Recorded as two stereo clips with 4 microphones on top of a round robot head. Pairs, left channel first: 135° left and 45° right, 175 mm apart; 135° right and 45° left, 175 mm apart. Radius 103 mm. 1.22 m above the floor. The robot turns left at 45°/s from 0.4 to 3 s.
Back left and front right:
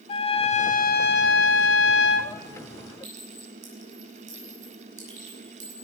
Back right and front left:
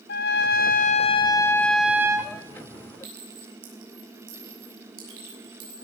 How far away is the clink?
About 6.5 m.